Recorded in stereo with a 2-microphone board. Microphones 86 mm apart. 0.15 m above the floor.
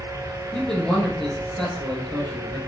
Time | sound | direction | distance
0.5 | a man speaking | 10° left (ahead or behind) | 2 m